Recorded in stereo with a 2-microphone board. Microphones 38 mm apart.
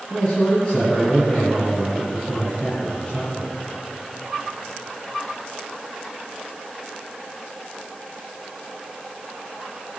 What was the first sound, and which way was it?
A man speaking, 20° left (ahead or behind).